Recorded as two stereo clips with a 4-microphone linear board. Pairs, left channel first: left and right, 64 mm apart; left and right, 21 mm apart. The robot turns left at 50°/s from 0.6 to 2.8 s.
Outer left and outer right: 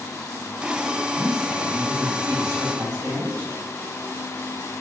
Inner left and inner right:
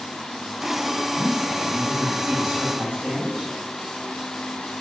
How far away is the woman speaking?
About 2.5 m.